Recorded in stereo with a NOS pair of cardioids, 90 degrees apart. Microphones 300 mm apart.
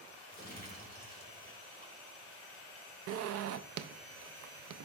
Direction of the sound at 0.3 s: 30° right.